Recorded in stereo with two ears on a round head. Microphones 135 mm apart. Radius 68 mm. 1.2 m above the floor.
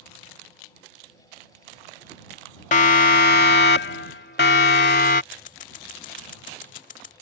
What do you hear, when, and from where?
2.7 s a siren: 55° left (ahead or behind); by 5.2 s 70° left (ahead or behind)
5.3 s scissors: 55° left (ahead or behind)